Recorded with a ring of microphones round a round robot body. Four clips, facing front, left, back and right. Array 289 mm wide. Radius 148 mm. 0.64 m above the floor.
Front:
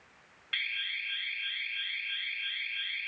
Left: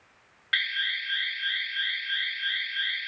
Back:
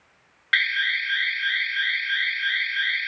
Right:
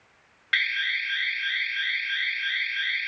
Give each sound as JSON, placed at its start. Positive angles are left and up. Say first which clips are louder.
{"t": 0.5, "sound": "an alarm", "louder": "right 3 dB, back 16 dB", "azimuth_deg": -175}